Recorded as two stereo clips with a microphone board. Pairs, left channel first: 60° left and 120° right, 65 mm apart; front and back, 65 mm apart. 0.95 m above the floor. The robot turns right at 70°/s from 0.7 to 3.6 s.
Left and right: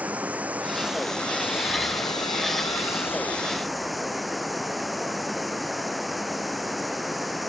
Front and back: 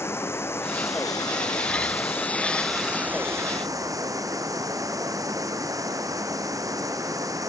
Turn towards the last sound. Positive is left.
turn(degrees=155)